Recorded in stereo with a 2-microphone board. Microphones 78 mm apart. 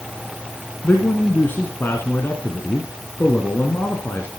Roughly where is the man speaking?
Left.